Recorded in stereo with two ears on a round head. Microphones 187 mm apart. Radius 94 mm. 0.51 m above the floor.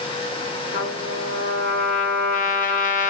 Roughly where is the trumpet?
Left.